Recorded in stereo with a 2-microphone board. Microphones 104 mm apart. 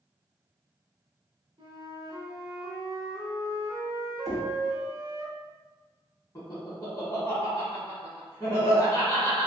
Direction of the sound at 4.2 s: Centre (ahead or behind).